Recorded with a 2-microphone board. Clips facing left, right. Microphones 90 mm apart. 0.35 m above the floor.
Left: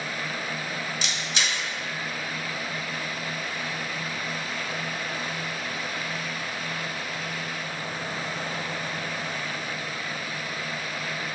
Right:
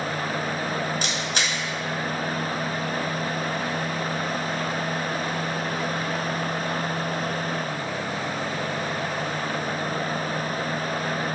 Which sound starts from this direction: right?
A camera shutter, at 1.0 s.